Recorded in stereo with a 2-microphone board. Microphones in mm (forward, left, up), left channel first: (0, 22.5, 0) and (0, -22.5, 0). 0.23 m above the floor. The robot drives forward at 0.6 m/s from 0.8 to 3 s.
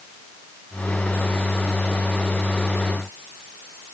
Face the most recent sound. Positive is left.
No sound to turn to.